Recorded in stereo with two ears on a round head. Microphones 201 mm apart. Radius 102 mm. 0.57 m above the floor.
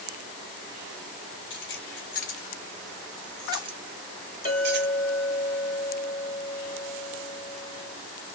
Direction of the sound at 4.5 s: 30° left (ahead or behind).